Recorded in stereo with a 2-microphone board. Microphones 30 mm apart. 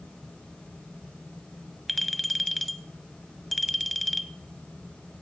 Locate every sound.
1.9 s a clink: 5° left (ahead or behind), 0.7 m